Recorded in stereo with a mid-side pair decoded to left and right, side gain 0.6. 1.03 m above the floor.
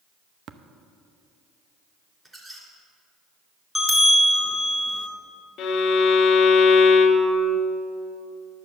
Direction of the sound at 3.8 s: Straight ahead.